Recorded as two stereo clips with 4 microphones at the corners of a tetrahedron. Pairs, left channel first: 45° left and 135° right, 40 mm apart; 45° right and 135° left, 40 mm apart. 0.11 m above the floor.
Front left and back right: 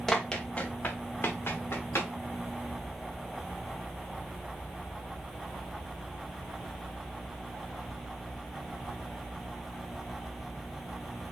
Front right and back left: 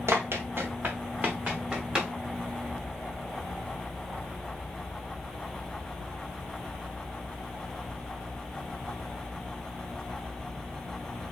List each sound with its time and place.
0.1 s running footsteps: 125° left, 1.8 m; by 2.1 s 65° left, 3.5 m